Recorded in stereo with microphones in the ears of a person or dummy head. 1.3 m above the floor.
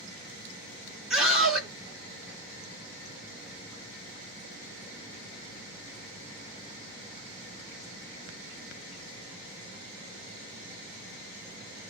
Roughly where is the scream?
Centre.